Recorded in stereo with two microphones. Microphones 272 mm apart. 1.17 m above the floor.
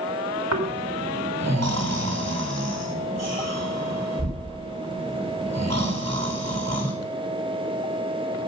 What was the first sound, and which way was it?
Snoring, 70° right (ahead or behind).